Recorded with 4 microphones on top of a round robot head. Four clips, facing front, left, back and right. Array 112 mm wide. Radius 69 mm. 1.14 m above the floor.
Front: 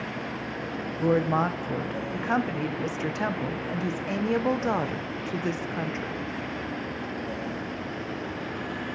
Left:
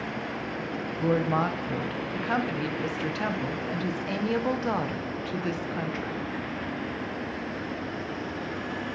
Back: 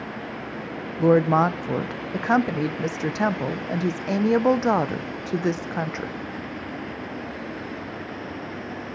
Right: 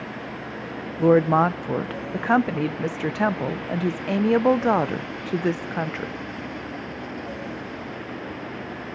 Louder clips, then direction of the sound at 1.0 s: Right 9 dB, back 6 dB; 125° right.